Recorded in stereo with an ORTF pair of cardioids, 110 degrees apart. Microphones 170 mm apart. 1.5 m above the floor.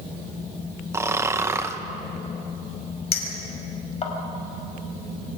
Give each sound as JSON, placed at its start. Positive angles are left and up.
{"t": 0.9, "sound": "snoring", "azimuth_deg": -15, "distance_m": 1.3}
{"t": 3.1, "sound": "a clink", "azimuth_deg": 40, "distance_m": 5.0}